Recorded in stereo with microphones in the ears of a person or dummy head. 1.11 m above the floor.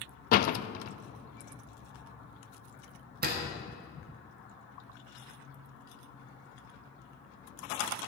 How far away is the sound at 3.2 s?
About 1.6 m.